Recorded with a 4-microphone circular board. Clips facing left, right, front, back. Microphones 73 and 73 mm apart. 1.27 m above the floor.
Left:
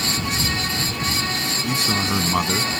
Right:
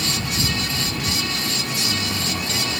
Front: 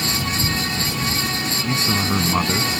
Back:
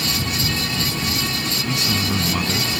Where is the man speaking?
55° left.